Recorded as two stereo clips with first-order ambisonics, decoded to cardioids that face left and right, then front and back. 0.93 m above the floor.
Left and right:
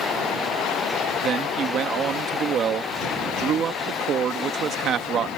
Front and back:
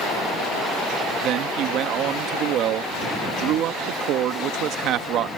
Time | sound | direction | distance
1.2 | a man speaking | 140° right | ?